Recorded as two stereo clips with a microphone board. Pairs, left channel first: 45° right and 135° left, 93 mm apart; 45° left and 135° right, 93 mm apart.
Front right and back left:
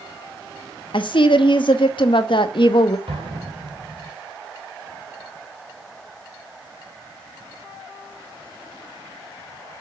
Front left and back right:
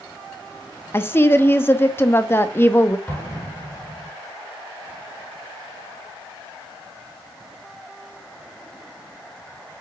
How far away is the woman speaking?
About 0.8 m.